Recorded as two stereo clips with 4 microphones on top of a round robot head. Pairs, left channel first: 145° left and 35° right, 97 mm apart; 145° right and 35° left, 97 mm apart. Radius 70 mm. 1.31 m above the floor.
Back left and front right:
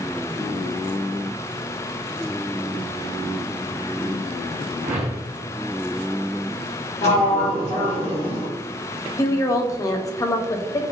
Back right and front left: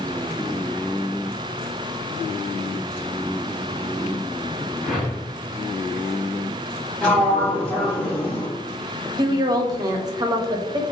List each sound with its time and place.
4.8 s a whoosh: 55° right, 0.9 m
7.0 s a sliding door: 140° left, 1.2 m
9.2 s a woman speaking: 85° left, 0.6 m